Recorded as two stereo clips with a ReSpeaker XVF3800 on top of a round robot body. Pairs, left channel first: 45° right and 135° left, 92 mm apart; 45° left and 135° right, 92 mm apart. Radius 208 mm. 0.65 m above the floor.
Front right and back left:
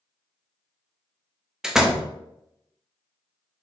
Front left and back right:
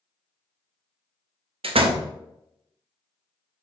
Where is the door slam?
140° right, 1.0 m.